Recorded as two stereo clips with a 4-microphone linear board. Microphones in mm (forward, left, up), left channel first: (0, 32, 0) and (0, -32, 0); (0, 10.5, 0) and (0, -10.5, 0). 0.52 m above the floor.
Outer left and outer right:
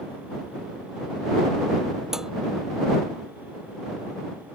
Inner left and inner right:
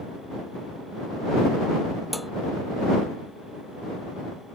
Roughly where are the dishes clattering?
Centre.